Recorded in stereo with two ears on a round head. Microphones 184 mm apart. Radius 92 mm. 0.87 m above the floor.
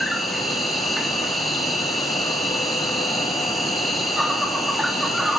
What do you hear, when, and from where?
0.0 s an insect: centre (ahead or behind), 1.3 m